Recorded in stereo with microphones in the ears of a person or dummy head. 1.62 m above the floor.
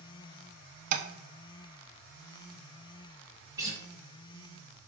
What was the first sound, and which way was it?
Tapping, 55° right (ahead or behind).